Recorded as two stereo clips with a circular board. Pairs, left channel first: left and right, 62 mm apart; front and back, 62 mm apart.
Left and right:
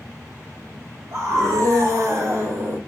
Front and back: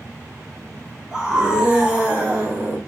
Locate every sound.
1.1 s a scream: 105° right, 1.8 m; by 2.8 s 130° right, 1.3 m